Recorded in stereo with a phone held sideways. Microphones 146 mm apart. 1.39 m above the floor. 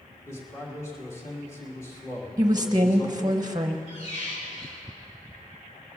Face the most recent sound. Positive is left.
turn(degrees=50)  # may be behind; listen again after turning